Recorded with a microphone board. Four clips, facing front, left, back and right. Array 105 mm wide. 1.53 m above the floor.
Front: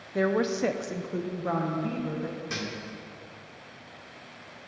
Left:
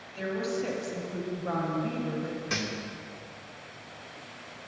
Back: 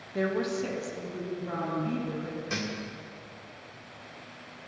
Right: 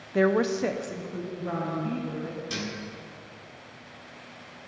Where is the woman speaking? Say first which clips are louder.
Right 8 dB, front 3 dB; 80° right, 0.6 m; by 2.4 s 25° left, 1.8 m.